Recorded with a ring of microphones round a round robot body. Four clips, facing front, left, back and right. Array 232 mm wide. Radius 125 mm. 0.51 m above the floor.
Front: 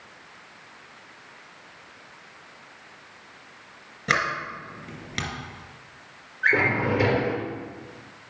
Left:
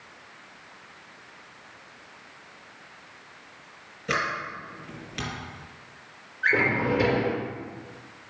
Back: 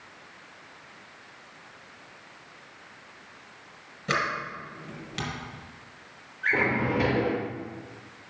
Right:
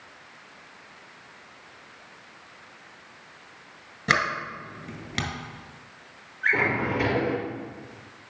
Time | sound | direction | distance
4.1 | a sliding door | 65° right | 3 m
6.4 | a drawer | 25° left | 4 m